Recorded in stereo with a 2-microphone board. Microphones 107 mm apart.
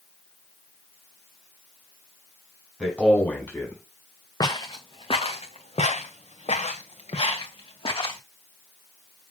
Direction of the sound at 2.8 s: 5° left (ahead or behind).